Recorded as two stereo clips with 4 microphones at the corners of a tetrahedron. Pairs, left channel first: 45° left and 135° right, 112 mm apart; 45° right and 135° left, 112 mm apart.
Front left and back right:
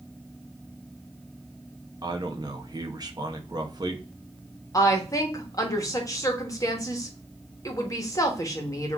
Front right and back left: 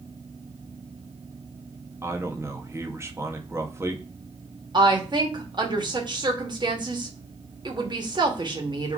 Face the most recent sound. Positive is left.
turn(degrees=100)